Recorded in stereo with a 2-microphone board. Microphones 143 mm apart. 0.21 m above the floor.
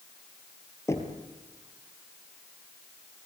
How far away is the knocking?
About 3 m.